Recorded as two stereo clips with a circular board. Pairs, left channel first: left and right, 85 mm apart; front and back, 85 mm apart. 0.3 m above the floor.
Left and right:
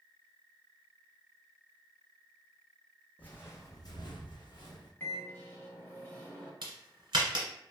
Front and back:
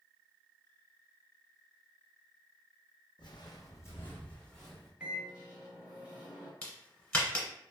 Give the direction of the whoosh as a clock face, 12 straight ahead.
I don't hear a whoosh.